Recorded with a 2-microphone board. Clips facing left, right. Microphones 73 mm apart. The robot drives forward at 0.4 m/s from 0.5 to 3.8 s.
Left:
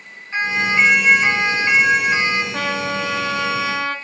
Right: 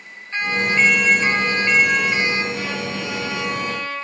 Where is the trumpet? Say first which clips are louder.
Left 4 dB; 65° left (ahead or behind), 5 m; by 4.0 s 70° left (ahead or behind), 5 m.